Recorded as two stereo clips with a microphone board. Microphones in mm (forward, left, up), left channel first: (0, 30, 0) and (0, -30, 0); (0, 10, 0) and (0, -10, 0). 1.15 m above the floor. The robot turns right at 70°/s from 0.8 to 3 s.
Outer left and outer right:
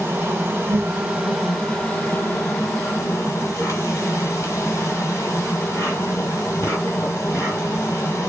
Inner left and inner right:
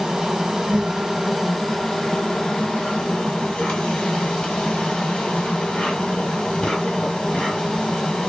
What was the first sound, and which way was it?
An insect, 45° right.